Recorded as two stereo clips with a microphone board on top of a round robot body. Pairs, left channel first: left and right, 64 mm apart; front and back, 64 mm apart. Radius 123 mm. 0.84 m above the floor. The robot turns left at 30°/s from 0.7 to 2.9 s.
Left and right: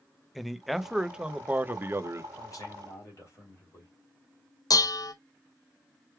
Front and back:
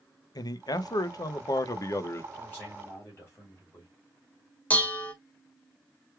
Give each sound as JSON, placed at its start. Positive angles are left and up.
{"t": 0.3, "sound": "a man speaking", "azimuth_deg": 0, "distance_m": 0.7}
{"t": 2.3, "sound": "a man speaking", "azimuth_deg": 65, "distance_m": 2.5}
{"t": 4.7, "sound": "dishes clattering", "azimuth_deg": 65, "distance_m": 0.7}